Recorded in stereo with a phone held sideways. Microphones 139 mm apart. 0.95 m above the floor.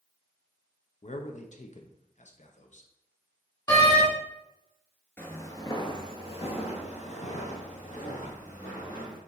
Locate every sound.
1.0 s a man speaking: 60° left (ahead or behind), 0.5 m
3.7 s a door slam: 30° left (ahead or behind), 1.7 m
5.2 s footsteps: 15° left (ahead or behind), 0.9 m; by 9.2 s 65° left (ahead or behind), 2.5 m